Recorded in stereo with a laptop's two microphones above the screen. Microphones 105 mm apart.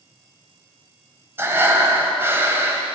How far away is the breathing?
About 1.5 m.